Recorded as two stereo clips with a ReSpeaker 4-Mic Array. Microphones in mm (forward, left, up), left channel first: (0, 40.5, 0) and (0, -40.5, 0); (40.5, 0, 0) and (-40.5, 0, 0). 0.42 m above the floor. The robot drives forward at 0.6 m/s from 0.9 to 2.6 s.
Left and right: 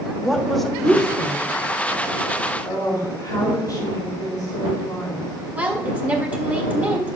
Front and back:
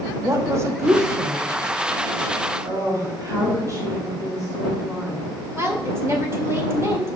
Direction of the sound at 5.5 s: 145° right.